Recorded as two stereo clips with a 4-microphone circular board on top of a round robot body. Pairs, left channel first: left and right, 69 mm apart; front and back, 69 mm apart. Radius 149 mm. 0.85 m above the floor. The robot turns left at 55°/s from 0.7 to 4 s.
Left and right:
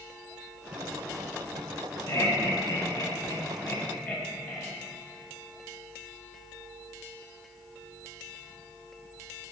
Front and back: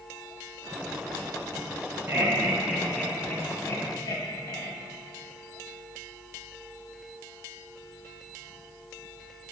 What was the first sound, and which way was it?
Laughter, 125° left.